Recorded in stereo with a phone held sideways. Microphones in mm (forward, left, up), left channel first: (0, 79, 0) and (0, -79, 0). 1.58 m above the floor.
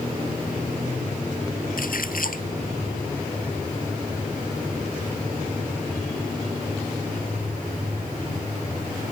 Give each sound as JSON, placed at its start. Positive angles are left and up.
{"t": 1.8, "sound": "a splash", "side_deg": 70}